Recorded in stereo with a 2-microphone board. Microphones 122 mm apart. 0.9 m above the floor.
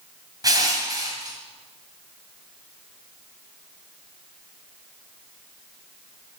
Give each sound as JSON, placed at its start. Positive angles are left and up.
{"t": 0.4, "sound": "crushing", "side_deg": -30, "distance_m": 2.0}